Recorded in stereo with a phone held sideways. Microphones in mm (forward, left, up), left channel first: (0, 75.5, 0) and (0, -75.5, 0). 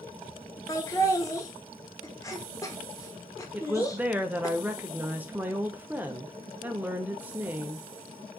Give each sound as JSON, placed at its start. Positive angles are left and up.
{"t": 0.7, "sound": "laughter", "side_deg": 20, "distance_m": 0.9}
{"t": 3.5, "sound": "a woman speaking", "side_deg": -10, "distance_m": 0.6}